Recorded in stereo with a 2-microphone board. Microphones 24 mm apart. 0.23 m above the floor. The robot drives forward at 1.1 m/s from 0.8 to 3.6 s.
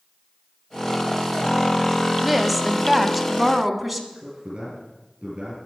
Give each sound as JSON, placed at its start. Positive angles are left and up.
{"t": 2.2, "sound": "a woman speaking", "side_deg": 0, "distance_m": 0.9}
{"t": 4.1, "sound": "a man speaking", "side_deg": -40, "distance_m": 5.0}